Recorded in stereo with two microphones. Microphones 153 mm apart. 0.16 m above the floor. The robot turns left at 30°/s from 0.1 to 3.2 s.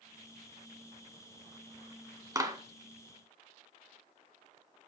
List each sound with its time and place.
2.4 s a clap: 25° right (ahead or behind), 1.1 m